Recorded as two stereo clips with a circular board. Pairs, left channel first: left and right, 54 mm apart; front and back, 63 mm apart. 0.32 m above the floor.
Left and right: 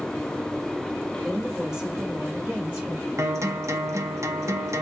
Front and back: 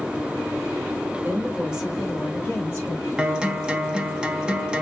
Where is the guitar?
105° right, 0.6 m.